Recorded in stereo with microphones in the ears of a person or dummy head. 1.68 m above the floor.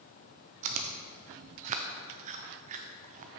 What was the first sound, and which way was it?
Chewing, 35° right (ahead or behind).